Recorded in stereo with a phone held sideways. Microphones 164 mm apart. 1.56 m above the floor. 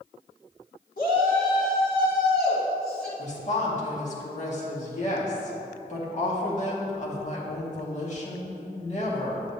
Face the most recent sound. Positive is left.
turn(degrees=45)  # may be behind; listen again after turning